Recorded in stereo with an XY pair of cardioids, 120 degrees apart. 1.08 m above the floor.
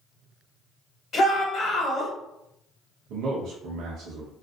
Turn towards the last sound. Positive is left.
turn(degrees=-65)